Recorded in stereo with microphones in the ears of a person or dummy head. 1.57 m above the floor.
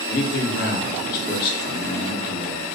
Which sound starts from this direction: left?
A man speaking, at 0.1 s.